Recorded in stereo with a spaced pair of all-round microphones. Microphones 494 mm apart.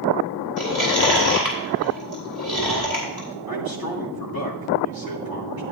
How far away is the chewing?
About 4 m.